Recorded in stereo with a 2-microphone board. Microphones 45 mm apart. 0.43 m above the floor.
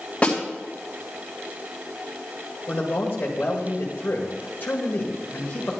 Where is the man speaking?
50° left (ahead or behind), 1.7 m.